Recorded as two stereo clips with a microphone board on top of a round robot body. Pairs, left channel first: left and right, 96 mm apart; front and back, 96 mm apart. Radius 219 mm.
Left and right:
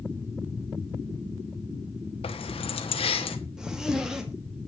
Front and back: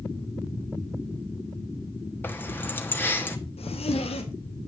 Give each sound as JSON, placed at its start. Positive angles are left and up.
{"t": 2.2, "sound": "keys jangling", "azimuth_deg": 70, "distance_m": 1.2}
{"t": 3.6, "sound": "a zipper", "azimuth_deg": -5, "distance_m": 1.9}